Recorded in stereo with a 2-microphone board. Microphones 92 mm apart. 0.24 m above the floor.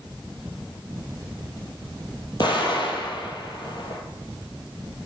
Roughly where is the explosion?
Left.